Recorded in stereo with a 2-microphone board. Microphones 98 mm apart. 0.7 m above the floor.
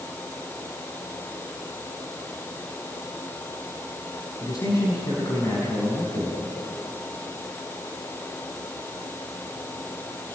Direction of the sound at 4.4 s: 35° left (ahead or behind).